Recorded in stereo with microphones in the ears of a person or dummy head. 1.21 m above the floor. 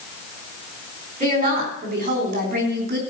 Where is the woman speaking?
40° right (ahead or behind), 4.5 m; by 3.0 s 55° right (ahead or behind), 3 m.